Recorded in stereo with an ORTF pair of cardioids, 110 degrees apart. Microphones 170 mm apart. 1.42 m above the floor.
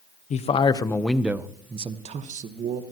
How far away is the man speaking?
About 1.2 m.